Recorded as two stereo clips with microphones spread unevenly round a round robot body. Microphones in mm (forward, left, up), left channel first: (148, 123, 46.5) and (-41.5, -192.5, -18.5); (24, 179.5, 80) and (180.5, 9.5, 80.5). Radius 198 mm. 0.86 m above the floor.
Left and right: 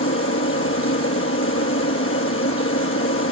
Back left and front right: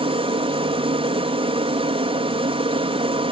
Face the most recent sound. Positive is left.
turn(degrees=5)